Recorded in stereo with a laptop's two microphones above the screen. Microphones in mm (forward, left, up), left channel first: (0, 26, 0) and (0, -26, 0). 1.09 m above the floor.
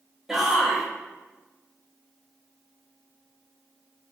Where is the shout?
10° right (ahead or behind), 0.9 m.